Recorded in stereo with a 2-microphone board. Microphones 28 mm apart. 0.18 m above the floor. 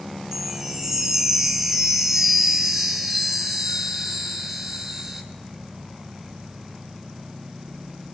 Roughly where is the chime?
Centre.